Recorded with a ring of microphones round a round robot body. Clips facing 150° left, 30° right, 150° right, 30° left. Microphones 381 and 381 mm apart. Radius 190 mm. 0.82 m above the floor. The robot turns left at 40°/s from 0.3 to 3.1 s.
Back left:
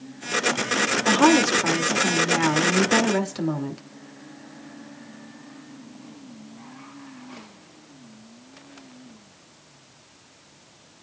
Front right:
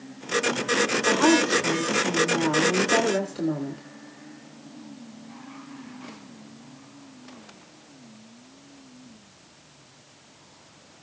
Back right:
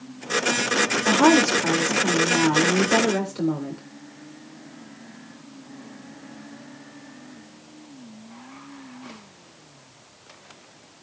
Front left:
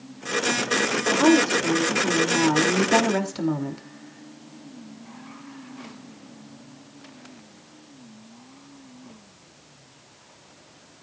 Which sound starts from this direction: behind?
A woman speaking, at 1.1 s.